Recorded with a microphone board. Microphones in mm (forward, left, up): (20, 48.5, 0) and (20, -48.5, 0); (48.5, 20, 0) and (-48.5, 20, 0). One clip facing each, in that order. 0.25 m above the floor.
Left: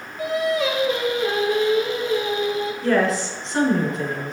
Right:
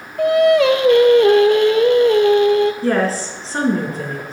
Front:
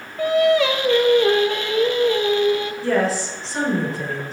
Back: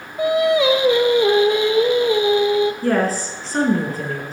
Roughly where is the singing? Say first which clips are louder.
Right 10 dB, even; right.